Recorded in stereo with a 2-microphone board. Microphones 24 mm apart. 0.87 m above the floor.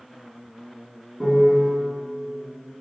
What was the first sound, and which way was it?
A piano, centre (ahead or behind).